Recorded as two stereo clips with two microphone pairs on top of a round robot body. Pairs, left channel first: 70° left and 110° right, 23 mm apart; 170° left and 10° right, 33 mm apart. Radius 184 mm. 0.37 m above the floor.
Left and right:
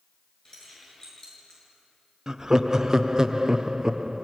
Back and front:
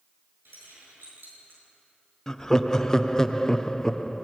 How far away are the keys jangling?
About 7 m.